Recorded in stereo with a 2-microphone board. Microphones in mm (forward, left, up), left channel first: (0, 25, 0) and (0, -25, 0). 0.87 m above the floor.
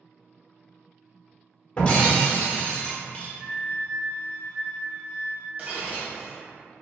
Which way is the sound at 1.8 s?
25° left (ahead or behind).